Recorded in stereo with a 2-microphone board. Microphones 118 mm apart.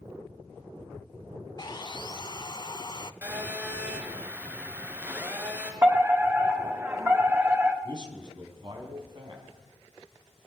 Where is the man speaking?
45° right (ahead or behind), 4 m.